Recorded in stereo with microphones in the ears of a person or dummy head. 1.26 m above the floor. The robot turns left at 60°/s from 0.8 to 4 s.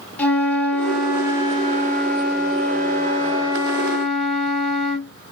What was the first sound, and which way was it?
A flute, 10° left.